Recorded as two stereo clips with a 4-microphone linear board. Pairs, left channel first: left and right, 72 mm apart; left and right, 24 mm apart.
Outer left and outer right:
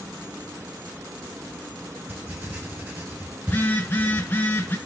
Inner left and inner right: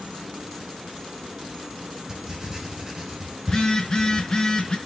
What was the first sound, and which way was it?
Writing, 25° right (ahead or behind).